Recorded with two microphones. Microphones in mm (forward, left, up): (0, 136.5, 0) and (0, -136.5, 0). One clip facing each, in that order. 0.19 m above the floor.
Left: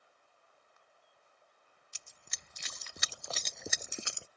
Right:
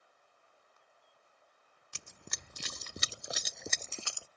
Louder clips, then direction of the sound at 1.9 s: Right 11 dB; 80° right.